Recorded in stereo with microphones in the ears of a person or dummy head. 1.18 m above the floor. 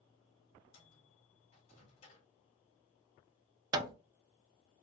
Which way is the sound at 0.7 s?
40° left (ahead or behind).